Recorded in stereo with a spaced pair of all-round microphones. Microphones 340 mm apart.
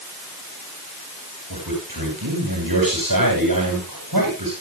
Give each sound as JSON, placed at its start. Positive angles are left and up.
{"t": 1.5, "sound": "a man speaking", "side_deg": -85, "distance_m": 9.0}